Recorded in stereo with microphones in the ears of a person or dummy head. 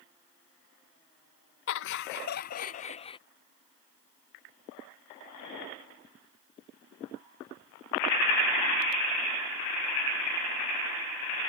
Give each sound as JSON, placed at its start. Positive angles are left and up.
{"t": 1.7, "sound": "laughter", "side_deg": 70}